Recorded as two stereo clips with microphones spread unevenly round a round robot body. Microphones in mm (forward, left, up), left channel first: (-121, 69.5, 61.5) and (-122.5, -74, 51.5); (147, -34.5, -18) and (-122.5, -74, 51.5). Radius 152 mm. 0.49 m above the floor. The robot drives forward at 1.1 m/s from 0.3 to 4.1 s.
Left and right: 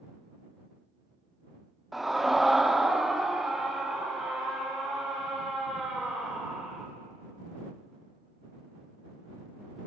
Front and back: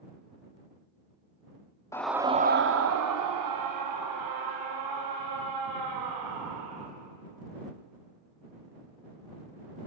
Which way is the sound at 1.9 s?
10° right.